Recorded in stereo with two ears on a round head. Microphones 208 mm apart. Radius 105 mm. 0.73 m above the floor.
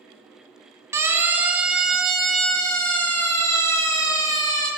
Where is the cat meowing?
I don't hear a cat meowing.